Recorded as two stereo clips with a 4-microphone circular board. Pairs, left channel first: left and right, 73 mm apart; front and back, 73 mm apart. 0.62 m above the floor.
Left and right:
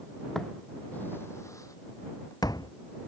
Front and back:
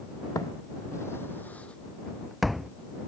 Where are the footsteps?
5° left; by 2.7 s 95° left.